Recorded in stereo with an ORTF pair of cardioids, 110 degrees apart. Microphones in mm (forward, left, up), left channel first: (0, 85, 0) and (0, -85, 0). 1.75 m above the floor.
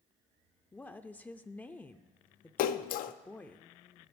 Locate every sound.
0.7 s a woman speaking: 10° left, 0.5 m
2.6 s a splash: 65° left, 0.5 m